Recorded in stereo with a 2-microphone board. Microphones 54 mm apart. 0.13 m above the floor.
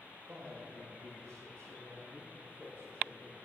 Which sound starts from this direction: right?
A man speaking, at 0.3 s.